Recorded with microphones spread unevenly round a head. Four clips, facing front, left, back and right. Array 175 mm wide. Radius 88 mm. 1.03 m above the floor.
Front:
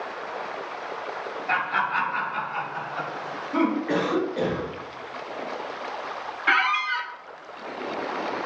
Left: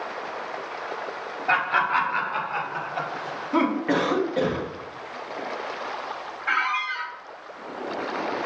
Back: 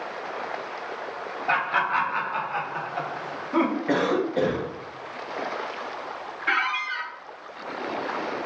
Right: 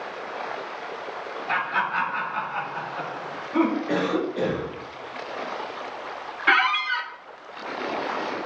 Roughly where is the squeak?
Right.